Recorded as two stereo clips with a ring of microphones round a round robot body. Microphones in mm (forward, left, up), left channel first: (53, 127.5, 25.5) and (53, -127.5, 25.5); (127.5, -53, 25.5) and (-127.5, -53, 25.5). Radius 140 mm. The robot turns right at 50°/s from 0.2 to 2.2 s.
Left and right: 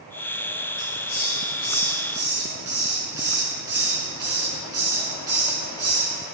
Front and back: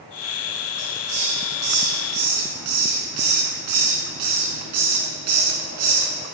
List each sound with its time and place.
0.8 s a hiss: 120° left, 2.5 m; by 6.1 s 165° right, 2.5 m